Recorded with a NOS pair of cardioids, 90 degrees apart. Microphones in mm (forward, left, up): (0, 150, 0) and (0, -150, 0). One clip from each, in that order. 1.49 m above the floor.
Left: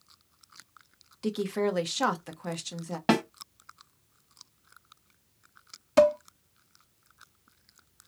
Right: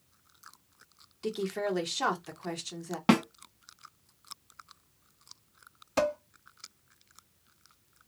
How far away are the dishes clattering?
About 1.4 m.